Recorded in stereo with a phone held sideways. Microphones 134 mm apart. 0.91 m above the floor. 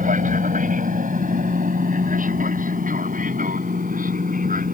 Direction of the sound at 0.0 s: 70° right (ahead or behind).